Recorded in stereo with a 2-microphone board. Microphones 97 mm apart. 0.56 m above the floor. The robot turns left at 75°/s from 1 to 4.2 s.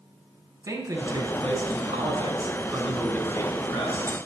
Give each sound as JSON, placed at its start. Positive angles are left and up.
{"t": 0.6, "sound": "a man speaking", "azimuth_deg": -35, "distance_m": 5.0}